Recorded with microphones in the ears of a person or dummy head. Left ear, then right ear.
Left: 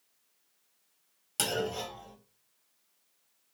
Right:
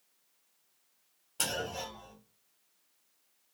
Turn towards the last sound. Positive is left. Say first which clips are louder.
# left 3 dB
turn(degrees=65)  # may be behind; listen again after turning